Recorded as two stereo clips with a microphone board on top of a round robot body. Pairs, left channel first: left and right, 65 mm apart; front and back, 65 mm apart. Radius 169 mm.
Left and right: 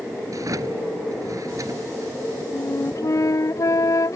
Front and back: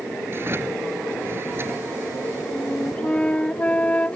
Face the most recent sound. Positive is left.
turn(degrees=70)